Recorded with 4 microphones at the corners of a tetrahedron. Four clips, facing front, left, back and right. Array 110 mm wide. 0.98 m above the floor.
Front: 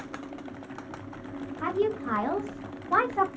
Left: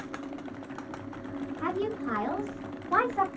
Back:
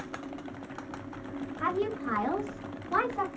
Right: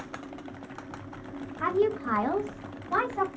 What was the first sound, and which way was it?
A woman speaking, 90° right.